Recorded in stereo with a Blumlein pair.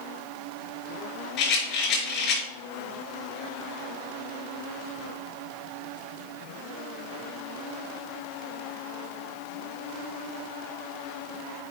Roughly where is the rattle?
Ahead left.